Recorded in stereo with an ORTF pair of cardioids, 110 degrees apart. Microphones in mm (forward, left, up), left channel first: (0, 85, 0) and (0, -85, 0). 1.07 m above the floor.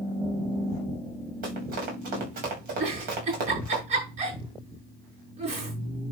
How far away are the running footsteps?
About 7.5 m.